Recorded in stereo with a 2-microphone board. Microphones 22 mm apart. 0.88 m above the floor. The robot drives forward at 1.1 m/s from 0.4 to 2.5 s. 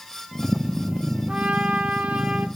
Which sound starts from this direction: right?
A trumpet, at 1.3 s.